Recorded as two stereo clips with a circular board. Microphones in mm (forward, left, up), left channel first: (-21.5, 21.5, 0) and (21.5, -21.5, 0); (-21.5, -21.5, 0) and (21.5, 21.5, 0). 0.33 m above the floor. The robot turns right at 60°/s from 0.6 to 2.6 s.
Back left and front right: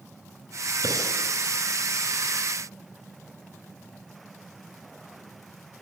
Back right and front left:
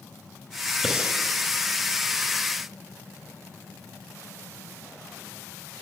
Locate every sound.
0.8 s breathing: 45° right, 4.5 m; by 1.2 s 25° right, 4.5 m